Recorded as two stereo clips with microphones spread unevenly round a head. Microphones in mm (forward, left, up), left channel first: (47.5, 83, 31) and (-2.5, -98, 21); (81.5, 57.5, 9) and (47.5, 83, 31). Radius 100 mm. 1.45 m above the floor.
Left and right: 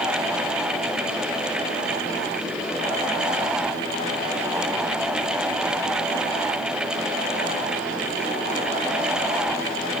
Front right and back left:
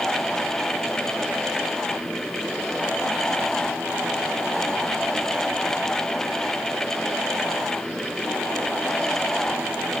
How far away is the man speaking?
No man speaking in this recording.